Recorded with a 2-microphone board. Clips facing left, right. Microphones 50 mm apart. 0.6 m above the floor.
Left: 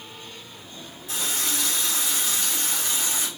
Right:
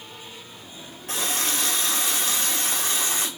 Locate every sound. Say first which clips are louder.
1.1 s a running tap: right 3 dB; 55° right (ahead or behind), 1.6 m